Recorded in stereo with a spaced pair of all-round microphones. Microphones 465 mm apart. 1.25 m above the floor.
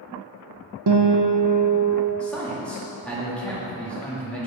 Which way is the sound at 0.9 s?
55° right (ahead or behind).